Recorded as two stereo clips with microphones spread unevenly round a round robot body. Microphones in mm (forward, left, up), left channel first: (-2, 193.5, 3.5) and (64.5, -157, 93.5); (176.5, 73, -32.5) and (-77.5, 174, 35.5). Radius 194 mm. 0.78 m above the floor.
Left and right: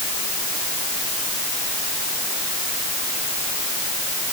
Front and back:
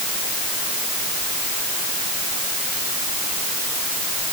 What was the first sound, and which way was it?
Only background noise.